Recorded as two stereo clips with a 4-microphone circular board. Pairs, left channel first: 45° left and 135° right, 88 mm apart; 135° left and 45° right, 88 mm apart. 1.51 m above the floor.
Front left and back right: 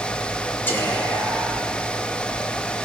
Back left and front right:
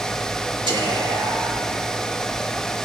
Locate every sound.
0.7 s whispering: 25° right, 3 m